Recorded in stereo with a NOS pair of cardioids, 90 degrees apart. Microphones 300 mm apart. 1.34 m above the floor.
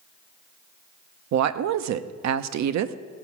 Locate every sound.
1.3 s a woman speaking: 65° right, 0.8 m